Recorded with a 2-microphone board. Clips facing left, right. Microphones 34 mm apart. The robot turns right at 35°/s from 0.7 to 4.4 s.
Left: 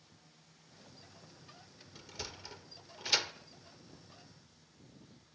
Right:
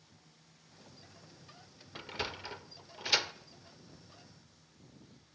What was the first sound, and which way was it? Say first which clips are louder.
A sliding door: right 8 dB; 50° right (ahead or behind).